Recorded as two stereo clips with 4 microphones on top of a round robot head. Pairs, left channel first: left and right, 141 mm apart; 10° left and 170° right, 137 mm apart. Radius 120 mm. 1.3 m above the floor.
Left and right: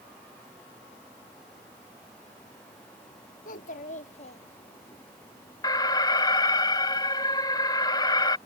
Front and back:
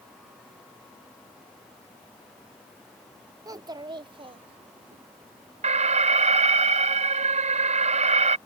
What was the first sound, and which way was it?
A child speaking, 130° left.